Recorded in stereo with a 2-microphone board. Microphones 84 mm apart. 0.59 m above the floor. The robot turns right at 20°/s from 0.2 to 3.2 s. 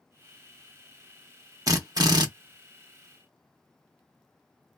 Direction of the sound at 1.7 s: 45° right (ahead or behind).